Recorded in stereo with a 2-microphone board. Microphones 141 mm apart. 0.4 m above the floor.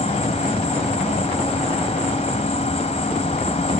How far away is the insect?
About 3 m.